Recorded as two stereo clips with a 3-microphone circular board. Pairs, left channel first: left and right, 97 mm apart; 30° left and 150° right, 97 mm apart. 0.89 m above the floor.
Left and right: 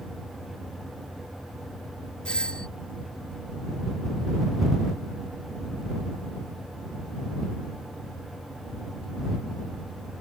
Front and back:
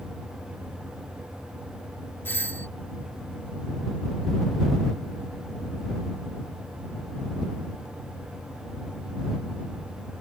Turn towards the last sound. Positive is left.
turn(degrees=30)